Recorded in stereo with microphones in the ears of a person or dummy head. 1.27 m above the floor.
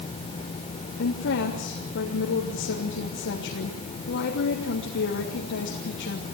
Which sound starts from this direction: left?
A woman speaking, at 1.0 s.